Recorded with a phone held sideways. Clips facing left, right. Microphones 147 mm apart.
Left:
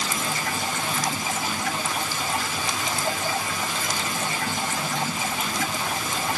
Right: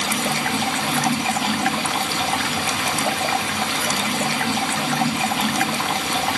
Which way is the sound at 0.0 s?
80° right.